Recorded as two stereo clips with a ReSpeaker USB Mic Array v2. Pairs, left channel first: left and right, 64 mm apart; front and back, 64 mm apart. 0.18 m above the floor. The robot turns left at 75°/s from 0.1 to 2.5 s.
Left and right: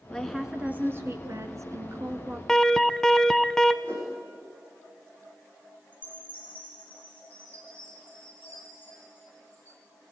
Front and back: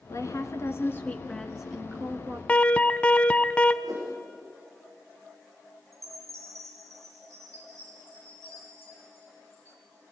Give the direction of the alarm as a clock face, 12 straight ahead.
11 o'clock.